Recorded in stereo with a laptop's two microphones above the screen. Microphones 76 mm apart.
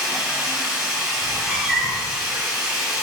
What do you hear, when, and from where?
0.0 s running water: 15° right (ahead or behind), 1.5 m
1.2 s a cat meowing: 5° left (ahead or behind), 1.0 m